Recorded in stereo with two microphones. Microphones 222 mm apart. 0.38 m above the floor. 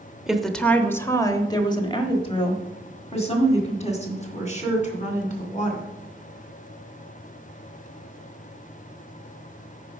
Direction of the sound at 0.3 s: Centre (ahead or behind).